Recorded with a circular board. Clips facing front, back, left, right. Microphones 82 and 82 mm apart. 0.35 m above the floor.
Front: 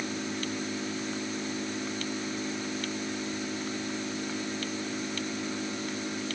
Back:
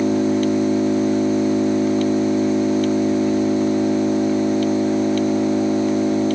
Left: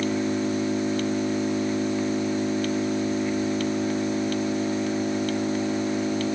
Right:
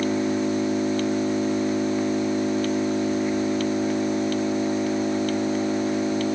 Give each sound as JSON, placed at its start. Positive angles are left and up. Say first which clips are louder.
{"t": 0.0, "sound": "an engine running", "louder": "back 17 dB, right 2 dB", "azimuth_deg": -165}